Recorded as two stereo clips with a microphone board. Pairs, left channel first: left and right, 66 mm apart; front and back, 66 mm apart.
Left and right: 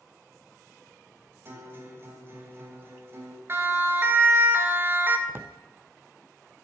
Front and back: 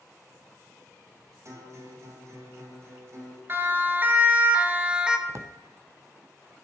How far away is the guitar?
About 3 m.